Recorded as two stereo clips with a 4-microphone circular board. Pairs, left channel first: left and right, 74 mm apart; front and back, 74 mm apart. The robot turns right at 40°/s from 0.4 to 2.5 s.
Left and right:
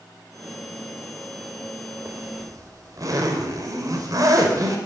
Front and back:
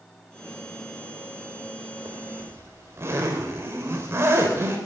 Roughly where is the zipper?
Behind right.